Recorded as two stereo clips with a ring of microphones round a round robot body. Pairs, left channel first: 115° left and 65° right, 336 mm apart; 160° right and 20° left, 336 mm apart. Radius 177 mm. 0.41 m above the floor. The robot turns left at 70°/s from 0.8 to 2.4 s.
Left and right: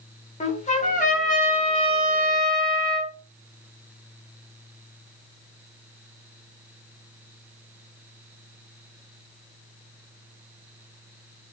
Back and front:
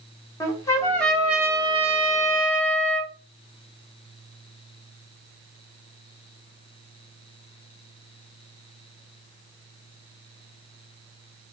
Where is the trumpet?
135° left, 1.4 m; by 3.1 s 25° left, 1.4 m.